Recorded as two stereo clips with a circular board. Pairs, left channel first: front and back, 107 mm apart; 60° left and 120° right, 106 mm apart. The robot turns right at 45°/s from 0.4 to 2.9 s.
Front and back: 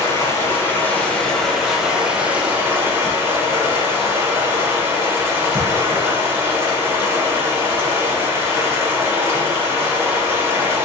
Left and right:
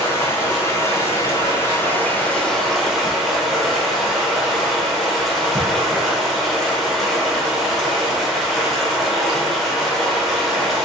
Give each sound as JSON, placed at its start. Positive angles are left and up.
{"t": 0.0, "sound": "running water", "azimuth_deg": 35, "distance_m": 0.8}